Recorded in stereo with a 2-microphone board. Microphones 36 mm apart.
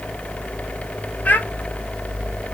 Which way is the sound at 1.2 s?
45° left (ahead or behind).